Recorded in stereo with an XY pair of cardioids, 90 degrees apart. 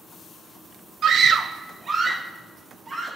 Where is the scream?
65° right, 1.0 m; by 3.2 s 35° right, 3.5 m.